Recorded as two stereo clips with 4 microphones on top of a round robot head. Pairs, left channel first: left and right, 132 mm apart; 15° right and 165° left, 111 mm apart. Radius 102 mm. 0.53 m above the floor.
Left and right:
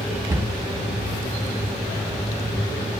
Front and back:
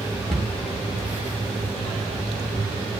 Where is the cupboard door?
110° right, 1.2 m.